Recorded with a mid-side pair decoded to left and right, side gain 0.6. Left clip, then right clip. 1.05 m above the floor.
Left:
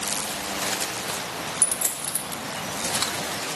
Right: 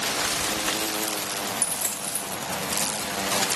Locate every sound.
1.6 s a dropped coin: 15° left, 1.1 m